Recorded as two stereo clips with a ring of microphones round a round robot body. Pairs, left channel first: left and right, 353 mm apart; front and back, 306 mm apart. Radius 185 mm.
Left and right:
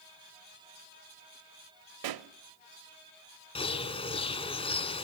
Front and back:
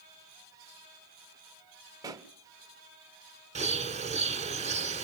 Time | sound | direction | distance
2.0 | a pop | 100° right | 0.8 m
3.5 | a bird | 145° left | 1.5 m